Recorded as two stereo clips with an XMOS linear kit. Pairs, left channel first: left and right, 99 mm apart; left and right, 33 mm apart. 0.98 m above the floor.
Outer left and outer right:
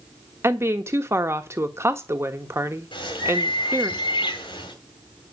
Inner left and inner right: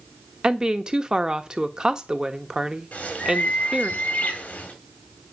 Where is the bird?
55° left (ahead or behind), 2.5 m.